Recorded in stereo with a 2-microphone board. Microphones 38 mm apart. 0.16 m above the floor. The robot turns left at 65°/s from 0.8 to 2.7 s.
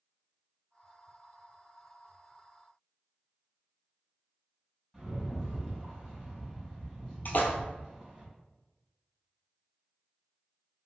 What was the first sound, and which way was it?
A rattle, 15° right (ahead or behind).